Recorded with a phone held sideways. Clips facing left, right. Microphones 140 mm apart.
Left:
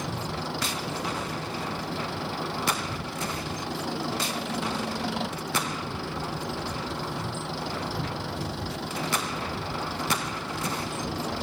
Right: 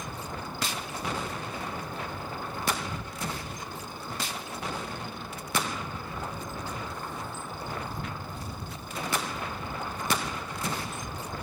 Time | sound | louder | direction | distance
0.0 | an engine running | left 5 dB | 75° left (ahead or behind) | ?